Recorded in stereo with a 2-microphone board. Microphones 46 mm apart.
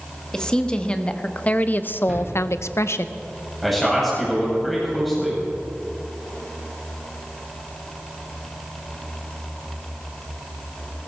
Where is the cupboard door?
5° right (ahead or behind), 7 m.